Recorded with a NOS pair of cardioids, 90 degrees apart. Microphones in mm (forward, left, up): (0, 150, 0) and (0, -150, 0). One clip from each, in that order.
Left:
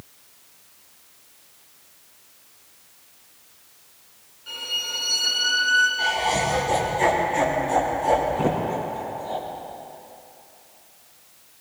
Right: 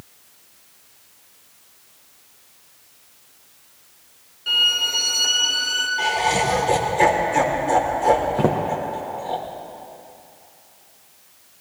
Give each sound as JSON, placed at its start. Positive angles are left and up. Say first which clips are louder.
{"t": 4.5, "sound": "a violin", "louder": "right 10 dB", "azimuth_deg": -60, "distance_m": 3.0}
{"t": 6.0, "sound": "laughter", "louder": "right 2 dB", "azimuth_deg": -60, "distance_m": 4.0}
{"t": 8.4, "sound": "footsteps", "louder": "right 3 dB", "azimuth_deg": -65, "distance_m": 4.0}